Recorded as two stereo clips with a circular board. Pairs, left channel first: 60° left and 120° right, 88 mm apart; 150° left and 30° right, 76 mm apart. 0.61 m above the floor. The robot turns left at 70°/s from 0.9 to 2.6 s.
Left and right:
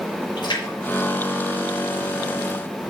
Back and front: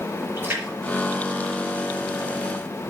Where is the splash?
30° left, 4.5 m; by 2.3 s 65° right, 4.5 m.